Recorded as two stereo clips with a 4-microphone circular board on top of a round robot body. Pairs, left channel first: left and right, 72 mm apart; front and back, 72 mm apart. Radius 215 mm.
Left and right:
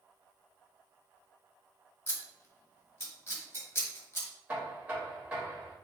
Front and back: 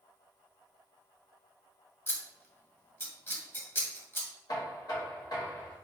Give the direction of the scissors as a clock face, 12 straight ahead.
10 o'clock.